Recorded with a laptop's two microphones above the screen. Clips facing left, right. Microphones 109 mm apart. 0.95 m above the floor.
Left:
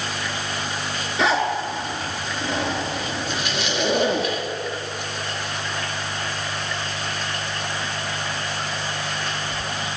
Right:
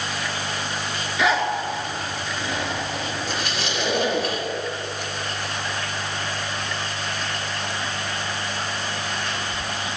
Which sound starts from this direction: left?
A zipper, at 1.2 s.